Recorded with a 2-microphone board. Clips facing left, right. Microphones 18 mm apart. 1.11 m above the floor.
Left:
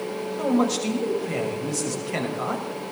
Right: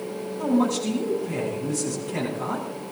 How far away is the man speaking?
About 6 m.